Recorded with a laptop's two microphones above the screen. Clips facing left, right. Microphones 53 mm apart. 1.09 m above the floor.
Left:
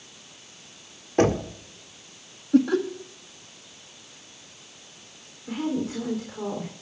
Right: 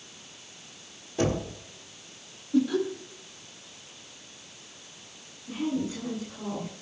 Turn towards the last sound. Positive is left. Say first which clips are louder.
# left 2 dB
turn(degrees=75)  # may be behind; listen again after turning